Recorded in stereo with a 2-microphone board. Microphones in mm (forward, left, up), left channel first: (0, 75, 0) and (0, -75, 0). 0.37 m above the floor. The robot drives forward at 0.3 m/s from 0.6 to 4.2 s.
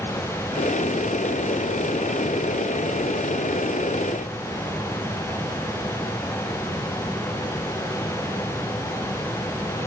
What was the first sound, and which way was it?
Only background noise.